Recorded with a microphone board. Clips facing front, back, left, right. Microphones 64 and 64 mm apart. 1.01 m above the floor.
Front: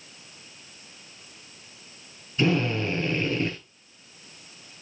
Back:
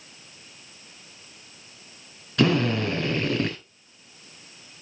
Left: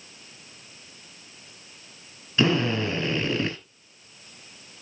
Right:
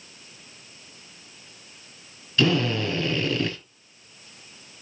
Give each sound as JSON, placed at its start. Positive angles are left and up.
{"t": 2.4, "sound": "a drill", "azimuth_deg": 160, "distance_m": 6.0}